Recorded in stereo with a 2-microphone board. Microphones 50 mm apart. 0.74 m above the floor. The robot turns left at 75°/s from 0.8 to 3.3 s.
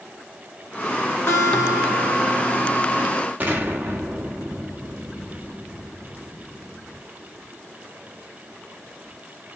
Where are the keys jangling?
No keys jangling in this recording.